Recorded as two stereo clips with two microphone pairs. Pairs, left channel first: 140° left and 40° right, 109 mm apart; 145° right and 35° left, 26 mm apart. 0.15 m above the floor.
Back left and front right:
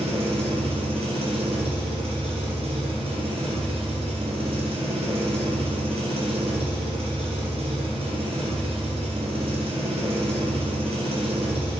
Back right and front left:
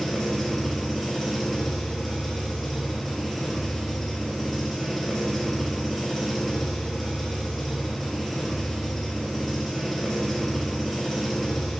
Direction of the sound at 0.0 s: 65° right.